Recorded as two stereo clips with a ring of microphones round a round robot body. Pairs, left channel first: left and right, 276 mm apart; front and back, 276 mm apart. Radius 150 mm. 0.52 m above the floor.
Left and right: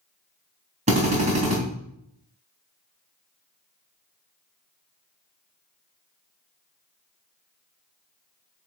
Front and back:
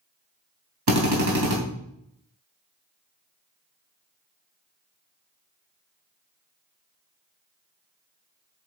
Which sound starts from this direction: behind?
A drill, at 0.9 s.